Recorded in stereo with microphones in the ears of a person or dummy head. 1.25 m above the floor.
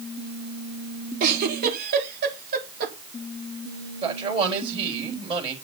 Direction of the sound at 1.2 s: 50° right (ahead or behind).